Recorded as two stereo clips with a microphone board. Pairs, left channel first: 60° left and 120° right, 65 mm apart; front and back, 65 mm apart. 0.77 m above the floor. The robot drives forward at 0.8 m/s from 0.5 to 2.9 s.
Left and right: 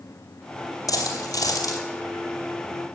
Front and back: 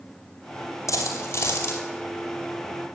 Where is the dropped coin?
40° left, 3 m; by 1.8 s 50° left, 2.5 m.